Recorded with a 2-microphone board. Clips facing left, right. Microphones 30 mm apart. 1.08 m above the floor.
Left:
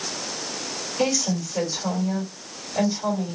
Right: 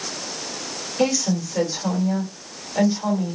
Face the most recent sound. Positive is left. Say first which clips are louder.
# right 3 dB
turn(degrees=-20)  # may be behind; listen again after turning